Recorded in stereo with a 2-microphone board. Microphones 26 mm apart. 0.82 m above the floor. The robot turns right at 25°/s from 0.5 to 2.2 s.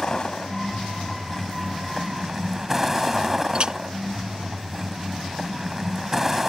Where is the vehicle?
145° left; by 6.5 s 170° right.